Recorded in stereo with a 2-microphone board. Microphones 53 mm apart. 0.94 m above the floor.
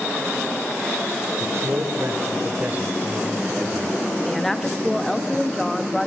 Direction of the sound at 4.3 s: 5° left (ahead or behind).